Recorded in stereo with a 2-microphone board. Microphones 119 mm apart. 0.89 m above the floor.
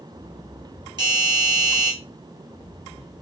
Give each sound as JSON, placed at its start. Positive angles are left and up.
{"t": 1.0, "sound": "a doorbell", "side_deg": -35, "distance_m": 0.9}